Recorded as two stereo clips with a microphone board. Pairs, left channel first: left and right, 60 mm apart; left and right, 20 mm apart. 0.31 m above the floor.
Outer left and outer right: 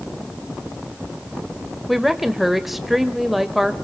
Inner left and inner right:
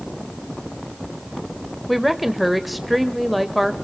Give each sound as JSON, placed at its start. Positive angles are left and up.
{"t": 1.9, "sound": "a woman speaking", "side_deg": 0, "distance_m": 0.9}